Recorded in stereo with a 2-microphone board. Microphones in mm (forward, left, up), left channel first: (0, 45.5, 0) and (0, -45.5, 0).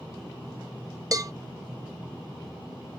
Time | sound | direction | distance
1.1 | a cowbell | 40° right (ahead or behind) | 0.6 m